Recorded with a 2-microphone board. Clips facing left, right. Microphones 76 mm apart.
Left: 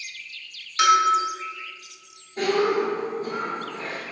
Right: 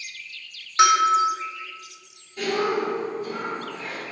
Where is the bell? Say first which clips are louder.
Right 1 dB; 30° right (ahead or behind), 1.6 m.